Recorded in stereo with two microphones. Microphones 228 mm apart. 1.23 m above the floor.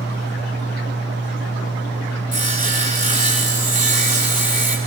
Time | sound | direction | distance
2.3 | sawing | 35° right (ahead or behind) | 3 m